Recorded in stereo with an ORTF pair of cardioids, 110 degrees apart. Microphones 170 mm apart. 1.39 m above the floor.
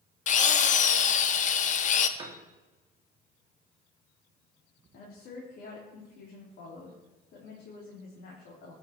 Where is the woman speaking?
65° left, 3 m.